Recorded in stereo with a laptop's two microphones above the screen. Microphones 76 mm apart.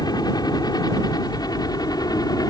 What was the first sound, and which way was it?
A helicopter, 65° left (ahead or behind).